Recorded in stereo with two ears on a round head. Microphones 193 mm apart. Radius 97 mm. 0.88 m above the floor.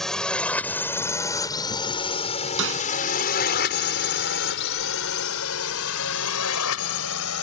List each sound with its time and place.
0.0 s a drone: centre (ahead or behind); by 7.4 s 80° left
2.6 s a snare drum: 60° right (ahead or behind)